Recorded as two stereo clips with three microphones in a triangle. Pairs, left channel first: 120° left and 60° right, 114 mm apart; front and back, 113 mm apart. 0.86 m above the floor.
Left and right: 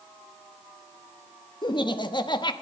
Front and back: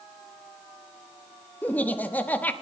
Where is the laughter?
75° left, 1.1 m.